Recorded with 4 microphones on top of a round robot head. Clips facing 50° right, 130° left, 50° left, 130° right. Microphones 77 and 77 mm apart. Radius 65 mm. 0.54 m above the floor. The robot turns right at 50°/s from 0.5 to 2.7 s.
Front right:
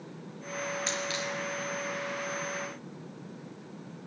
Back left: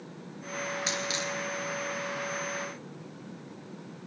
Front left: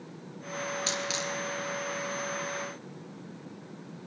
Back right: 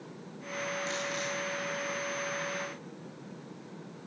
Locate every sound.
0.9 s a dropped coin: 45° left, 3.5 m; by 1.3 s 70° left, 3.5 m